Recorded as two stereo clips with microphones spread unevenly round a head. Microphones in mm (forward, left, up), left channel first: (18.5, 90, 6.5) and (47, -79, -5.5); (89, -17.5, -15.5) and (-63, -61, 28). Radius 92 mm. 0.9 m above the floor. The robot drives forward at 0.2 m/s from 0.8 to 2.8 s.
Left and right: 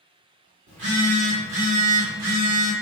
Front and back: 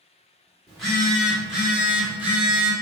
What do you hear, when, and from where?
0.7 s a phone buzzing: 70° right, 1.5 m; by 2.7 s 85° right, 1.4 m